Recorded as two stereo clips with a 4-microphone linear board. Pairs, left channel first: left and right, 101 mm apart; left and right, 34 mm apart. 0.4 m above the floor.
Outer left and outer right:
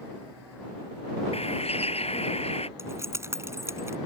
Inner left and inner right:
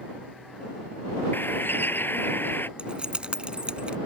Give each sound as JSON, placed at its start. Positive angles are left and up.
{"t": 1.3, "sound": "a bird", "side_deg": 85}
{"t": 2.8, "sound": "keys jangling", "side_deg": -30}